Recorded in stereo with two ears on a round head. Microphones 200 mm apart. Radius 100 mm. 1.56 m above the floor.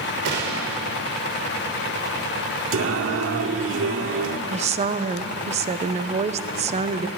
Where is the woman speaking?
30° right (ahead or behind), 1.1 m.